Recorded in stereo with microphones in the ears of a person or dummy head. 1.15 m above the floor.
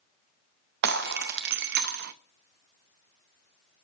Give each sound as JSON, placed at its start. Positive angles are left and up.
{"t": 0.8, "sound": "breaking glass", "side_deg": -50, "distance_m": 0.6}